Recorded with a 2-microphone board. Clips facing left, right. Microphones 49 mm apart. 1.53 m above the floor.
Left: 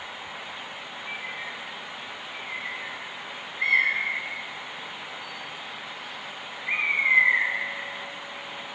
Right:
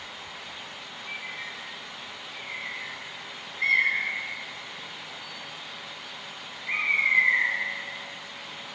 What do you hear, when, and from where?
1.1 s a bird: 15° left (ahead or behind), 4 m